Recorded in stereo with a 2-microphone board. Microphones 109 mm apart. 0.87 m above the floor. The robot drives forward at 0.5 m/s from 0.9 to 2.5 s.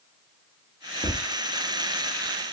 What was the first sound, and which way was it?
Tapping, 55° left (ahead or behind).